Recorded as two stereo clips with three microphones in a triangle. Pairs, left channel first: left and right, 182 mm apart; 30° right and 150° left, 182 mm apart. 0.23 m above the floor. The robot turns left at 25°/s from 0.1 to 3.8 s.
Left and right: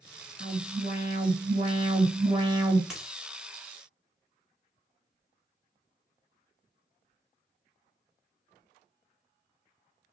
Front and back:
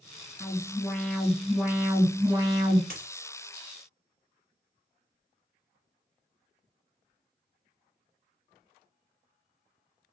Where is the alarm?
100° right, 2.5 m; by 2.8 s 160° right, 2.5 m.